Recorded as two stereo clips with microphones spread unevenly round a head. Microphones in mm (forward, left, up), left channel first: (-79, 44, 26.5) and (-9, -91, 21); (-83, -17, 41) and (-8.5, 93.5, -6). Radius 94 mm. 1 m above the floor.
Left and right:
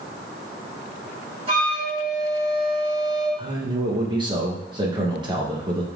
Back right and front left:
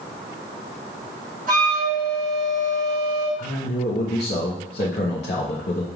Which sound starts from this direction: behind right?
A man speaking, at 3.4 s.